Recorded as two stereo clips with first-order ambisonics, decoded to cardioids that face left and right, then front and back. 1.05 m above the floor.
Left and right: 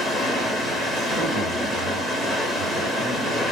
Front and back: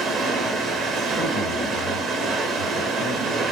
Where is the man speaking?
50° right, 1.6 m.